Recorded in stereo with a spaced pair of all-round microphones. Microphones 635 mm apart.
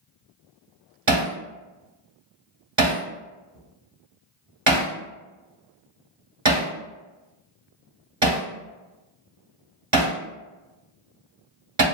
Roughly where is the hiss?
No hiss in this recording.